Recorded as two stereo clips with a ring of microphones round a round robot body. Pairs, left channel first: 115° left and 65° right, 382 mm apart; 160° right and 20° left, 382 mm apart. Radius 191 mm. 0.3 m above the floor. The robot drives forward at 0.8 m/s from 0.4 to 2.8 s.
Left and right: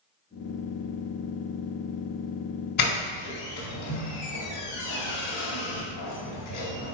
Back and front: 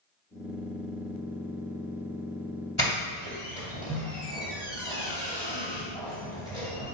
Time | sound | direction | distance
2.8 | a doorbell | 125° left | 2.5 m